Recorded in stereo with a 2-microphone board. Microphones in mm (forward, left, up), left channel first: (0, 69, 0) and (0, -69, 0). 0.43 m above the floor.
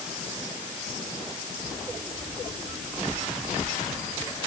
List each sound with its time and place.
Only background noise.